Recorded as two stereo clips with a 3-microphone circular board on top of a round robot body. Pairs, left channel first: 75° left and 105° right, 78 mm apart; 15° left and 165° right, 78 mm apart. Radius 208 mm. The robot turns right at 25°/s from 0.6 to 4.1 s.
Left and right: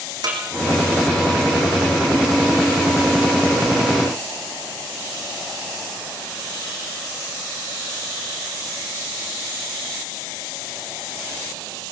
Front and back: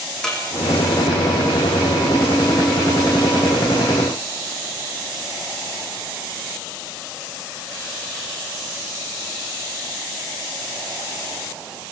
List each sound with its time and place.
0.2 s a snare drum: 70° right, 6.5 m